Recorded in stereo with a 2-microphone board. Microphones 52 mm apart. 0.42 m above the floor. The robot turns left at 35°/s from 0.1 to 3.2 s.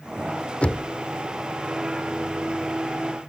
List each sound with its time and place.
0.6 s knocking: 30° left (ahead or behind)